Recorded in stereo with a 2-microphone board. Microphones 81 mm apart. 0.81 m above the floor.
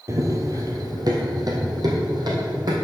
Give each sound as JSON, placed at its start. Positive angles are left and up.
{"t": 0.1, "sound": "running footsteps", "side_deg": -35, "distance_m": 0.9}